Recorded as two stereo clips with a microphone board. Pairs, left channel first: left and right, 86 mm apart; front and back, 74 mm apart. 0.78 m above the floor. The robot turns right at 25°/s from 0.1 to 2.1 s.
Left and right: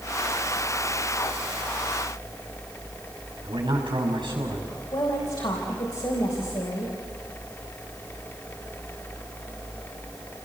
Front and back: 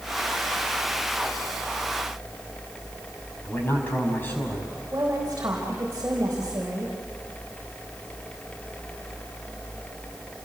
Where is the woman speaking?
125° left, 4 m.